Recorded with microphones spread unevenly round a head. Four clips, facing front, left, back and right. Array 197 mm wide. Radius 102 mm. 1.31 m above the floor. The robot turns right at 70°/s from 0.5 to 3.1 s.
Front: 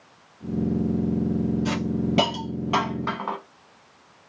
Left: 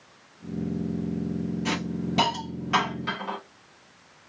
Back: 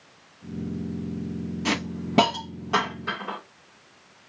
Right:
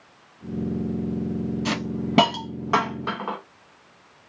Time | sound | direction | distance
1.6 | a hiss | 150° right | 0.9 m